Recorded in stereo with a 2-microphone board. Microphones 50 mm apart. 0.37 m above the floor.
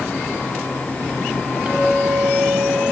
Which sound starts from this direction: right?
A clink, at 1.7 s.